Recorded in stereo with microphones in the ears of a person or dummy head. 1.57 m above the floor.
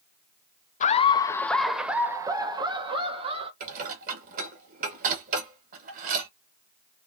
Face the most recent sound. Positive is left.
turn(degrees=-50)  # may be behind; listen again after turning